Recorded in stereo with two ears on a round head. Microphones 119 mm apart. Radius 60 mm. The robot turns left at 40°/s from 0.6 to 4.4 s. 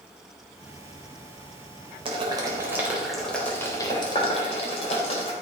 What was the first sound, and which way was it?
Boiling, 45° right (ahead or behind).